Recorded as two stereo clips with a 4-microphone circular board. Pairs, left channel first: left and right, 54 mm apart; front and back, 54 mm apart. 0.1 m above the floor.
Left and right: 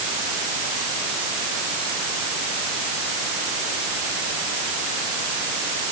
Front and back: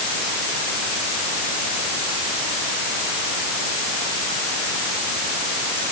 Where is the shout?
No shout in this recording.